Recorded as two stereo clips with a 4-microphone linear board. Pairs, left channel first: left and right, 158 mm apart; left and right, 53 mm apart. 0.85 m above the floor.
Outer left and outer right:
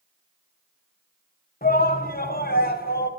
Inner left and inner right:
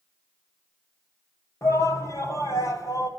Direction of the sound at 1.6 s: 70° left (ahead or behind).